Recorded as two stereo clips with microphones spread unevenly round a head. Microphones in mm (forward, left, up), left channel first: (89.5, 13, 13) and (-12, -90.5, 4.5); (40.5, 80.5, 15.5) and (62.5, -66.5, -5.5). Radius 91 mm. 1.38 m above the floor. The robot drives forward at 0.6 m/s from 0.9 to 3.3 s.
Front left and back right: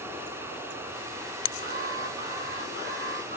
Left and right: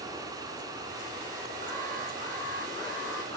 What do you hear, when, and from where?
1.6 s an alarm: straight behind, 5.5 m